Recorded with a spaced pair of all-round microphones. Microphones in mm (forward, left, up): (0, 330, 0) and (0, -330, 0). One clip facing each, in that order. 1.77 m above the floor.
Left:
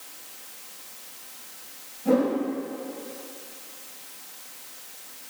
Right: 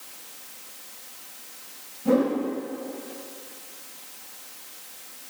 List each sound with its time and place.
2.0 s a whoosh: 30° right (ahead or behind), 1.8 m